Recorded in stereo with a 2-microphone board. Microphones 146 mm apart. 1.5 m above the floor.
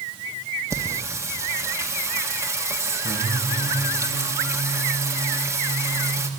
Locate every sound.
0.7 s singing: 20° right (ahead or behind), 1.7 m